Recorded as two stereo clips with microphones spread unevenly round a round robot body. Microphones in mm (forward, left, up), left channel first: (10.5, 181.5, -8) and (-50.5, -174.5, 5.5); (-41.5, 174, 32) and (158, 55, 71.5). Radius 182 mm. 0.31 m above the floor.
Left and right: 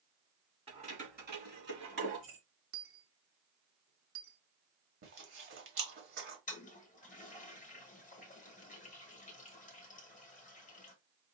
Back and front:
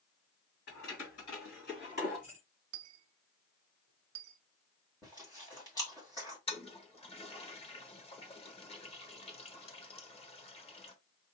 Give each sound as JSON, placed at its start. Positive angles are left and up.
{"t": 0.7, "sound": "keys jangling", "azimuth_deg": -175, "distance_m": 1.9}
{"t": 2.7, "sound": "a dropped coin", "azimuth_deg": -35, "distance_m": 0.5}
{"t": 5.0, "sound": "chewing", "azimuth_deg": -150, "distance_m": 1.4}
{"t": 6.5, "sound": "a toilet flushing", "azimuth_deg": 130, "distance_m": 1.1}